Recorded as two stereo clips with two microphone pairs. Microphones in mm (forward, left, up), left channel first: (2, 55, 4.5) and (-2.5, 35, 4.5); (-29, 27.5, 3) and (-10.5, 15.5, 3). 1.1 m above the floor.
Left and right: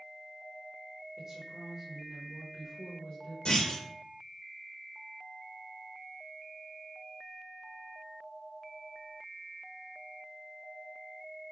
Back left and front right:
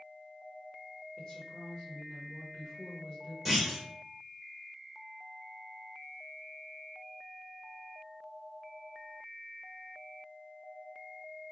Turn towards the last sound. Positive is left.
turn(degrees=50)